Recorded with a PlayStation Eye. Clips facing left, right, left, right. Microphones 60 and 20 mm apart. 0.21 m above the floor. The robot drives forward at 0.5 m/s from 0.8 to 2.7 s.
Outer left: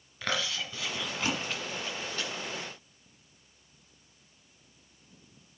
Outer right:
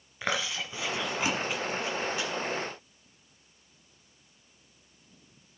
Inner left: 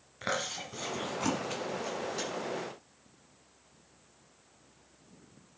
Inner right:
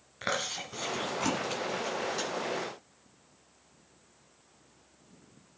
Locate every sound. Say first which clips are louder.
0.2 s chewing: outer right 1 dB, inner right 1 dB; 20° right (ahead or behind), 1.4 m; by 2.3 s 15° right (ahead or behind), 2.0 m